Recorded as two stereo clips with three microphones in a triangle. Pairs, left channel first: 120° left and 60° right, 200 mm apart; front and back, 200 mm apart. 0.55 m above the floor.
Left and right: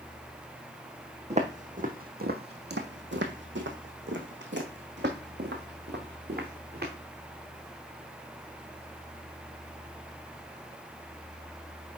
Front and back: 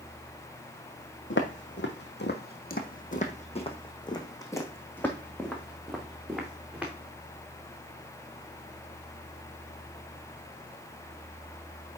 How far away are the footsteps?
About 1.6 m.